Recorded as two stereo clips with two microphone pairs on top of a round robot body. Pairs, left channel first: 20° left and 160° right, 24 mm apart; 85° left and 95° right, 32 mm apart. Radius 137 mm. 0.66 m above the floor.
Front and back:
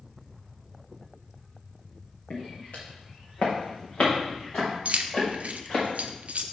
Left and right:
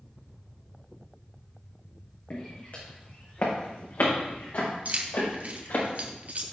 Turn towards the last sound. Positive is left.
turn(degrees=-135)